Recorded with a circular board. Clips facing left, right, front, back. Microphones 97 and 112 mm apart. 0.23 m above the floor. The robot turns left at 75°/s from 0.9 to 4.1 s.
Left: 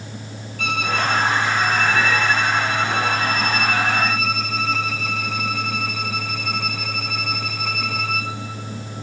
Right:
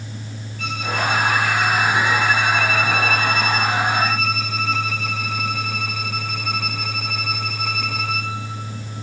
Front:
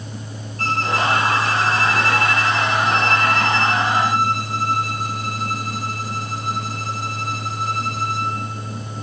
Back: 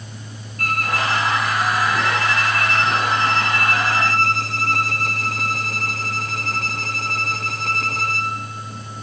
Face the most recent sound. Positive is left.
turn(degrees=180)